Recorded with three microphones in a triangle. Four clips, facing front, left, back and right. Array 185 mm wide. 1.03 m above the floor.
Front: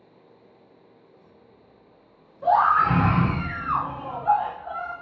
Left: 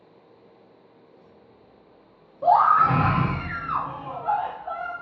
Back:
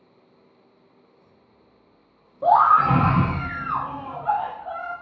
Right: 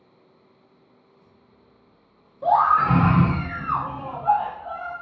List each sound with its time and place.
2.4 s a scream: 155° left, 0.8 m; by 4.9 s 75° right, 1.4 m